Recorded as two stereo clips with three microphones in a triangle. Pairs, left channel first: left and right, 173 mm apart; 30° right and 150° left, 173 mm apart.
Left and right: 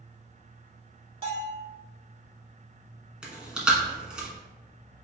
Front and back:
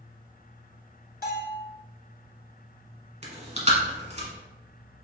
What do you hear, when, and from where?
1.2 s a bell: 35° right, 1.0 m
3.2 s chewing: 175° right, 1.1 m